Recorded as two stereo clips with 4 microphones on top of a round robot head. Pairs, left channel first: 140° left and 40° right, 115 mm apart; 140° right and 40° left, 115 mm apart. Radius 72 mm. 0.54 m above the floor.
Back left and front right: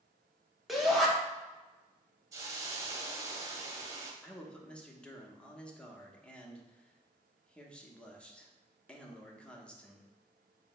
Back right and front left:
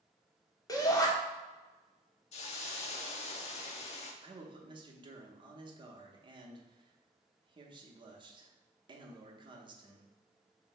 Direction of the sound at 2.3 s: 105° right.